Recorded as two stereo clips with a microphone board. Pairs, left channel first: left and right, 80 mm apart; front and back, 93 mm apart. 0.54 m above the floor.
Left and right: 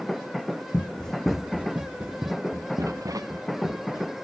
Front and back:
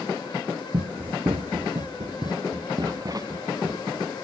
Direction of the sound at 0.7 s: 160° left.